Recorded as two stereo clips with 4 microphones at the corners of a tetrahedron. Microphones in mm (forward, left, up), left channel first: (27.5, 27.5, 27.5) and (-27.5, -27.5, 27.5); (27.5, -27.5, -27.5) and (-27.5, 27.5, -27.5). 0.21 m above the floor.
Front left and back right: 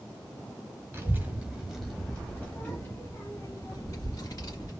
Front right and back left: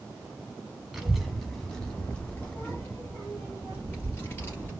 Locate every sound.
0.9 s a child speaking: 145° right, 1.2 m; by 4.7 s 10° left, 2.5 m